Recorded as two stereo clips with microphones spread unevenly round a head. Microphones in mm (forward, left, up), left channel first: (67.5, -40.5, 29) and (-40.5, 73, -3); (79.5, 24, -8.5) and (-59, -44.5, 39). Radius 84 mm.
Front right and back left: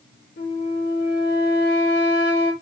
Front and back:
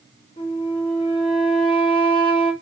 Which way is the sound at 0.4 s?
35° right.